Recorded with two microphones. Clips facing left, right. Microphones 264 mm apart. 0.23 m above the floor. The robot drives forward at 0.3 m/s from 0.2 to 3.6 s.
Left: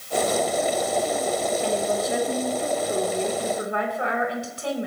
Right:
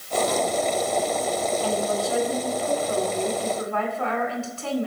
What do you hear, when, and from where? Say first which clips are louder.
1.6 s a woman speaking: even; 25° left (ahead or behind), 1.5 m; by 4.9 s 20° left (ahead or behind), 1.9 m